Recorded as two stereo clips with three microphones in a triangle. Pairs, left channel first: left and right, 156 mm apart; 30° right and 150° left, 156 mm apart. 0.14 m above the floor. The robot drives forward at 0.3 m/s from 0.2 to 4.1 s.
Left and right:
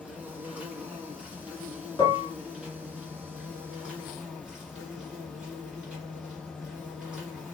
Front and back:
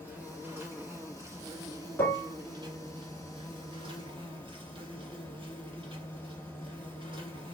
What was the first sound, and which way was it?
An insect, 155° right.